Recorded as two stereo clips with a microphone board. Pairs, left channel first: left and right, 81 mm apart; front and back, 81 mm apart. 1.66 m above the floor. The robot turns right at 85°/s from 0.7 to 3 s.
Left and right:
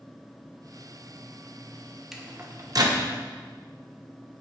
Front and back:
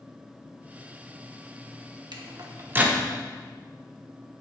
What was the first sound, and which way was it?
A microwave, 175° right.